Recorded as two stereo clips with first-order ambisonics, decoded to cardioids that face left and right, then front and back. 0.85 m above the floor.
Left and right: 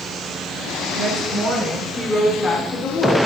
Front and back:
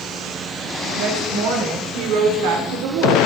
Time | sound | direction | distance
0.9 | a woman speaking | 150° right | 3 m